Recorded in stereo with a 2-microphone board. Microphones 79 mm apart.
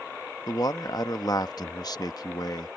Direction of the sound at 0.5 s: 55° left (ahead or behind).